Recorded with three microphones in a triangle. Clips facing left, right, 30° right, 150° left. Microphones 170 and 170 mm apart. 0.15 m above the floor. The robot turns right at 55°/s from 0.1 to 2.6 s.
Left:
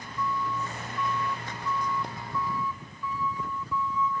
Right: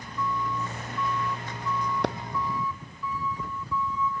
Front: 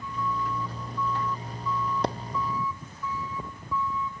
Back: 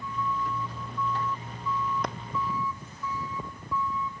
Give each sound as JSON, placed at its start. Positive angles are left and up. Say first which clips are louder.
{"t": 2.0, "sound": "a clap", "louder": "right 12 dB, front 6 dB", "azimuth_deg": -90}